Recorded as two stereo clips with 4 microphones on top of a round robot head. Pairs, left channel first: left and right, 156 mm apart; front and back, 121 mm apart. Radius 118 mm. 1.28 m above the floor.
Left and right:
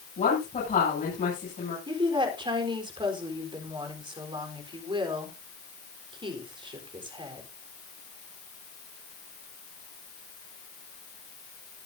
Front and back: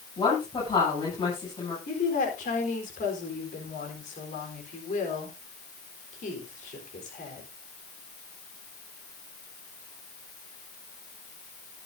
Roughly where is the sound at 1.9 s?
Ahead right.